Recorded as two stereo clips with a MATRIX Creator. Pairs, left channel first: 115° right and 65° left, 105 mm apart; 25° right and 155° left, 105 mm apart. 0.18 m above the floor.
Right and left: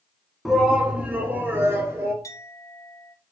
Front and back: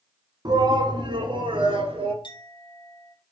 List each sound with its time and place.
0.5 s a shout: 155° left, 1.5 m; by 2.1 s 130° left, 2.5 m
2.2 s a clink: 55° right, 1.7 m